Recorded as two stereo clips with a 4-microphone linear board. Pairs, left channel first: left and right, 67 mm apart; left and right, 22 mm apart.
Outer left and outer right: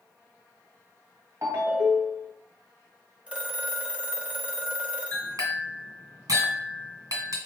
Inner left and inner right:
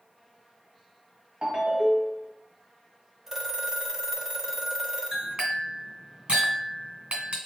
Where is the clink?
60° right (ahead or behind), 2 m.